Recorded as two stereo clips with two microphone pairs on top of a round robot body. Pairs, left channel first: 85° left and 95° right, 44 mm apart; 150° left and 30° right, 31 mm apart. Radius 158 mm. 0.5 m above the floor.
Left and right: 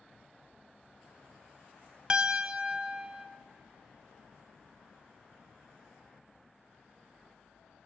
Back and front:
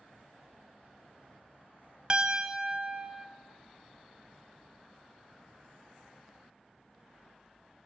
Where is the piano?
35° right, 0.6 m.